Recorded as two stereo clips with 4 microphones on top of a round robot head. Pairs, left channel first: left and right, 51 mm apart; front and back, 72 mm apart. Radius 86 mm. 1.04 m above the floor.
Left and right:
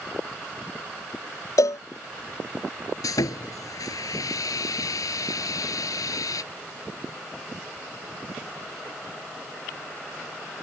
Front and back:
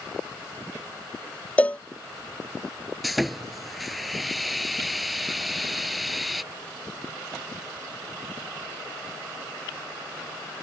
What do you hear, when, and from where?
1.6 s a cowbell: 75° left
3.0 s sawing: 95° left